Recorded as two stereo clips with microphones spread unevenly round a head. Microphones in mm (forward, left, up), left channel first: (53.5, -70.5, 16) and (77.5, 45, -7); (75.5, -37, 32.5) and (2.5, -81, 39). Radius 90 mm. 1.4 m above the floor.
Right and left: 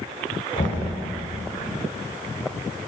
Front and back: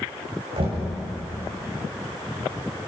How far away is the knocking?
About 6.5 m.